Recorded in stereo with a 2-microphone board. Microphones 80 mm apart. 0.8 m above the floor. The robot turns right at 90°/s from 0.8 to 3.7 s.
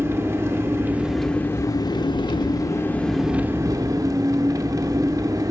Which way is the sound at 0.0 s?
35° right.